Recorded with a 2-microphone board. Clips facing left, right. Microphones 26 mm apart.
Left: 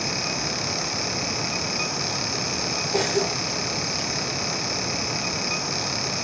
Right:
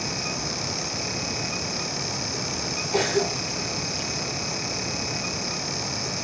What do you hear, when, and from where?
2.9 s a cough: 10° right (ahead or behind), 1.2 m